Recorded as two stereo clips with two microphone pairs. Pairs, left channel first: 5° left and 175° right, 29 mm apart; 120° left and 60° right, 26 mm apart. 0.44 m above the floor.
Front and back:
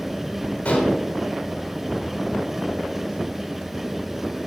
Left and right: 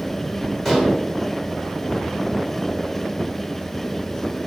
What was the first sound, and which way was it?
Dishes clattering, 45° left.